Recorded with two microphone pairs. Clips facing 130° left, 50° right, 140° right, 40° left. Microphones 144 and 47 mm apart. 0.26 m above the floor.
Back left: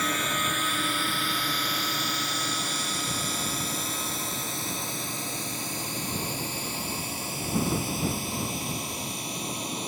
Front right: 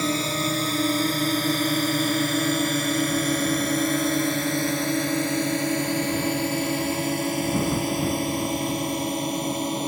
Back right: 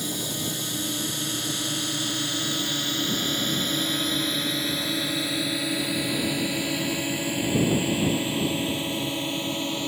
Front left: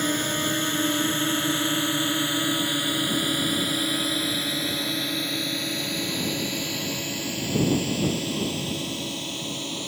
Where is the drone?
5° left; by 9.9 s 75° right.